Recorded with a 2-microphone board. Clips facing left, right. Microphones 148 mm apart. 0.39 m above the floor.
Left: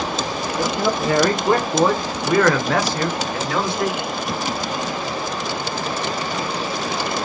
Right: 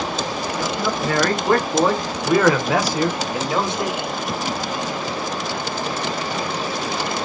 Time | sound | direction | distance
0.6 | a man speaking | 30° left (ahead or behind) | 1.3 m